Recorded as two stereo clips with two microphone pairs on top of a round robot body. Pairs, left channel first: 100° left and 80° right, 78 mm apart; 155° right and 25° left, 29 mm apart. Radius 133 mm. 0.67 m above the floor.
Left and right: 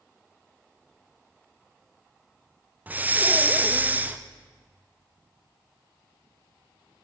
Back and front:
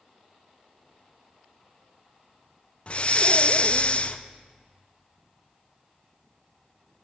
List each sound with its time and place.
2.9 s breathing: 150° right, 0.6 m